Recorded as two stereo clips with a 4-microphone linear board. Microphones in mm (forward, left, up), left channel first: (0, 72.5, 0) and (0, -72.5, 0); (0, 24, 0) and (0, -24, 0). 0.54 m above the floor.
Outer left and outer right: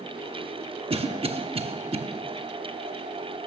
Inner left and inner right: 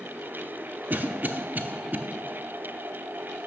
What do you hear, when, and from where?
0.9 s a cough: 40° right (ahead or behind), 0.8 m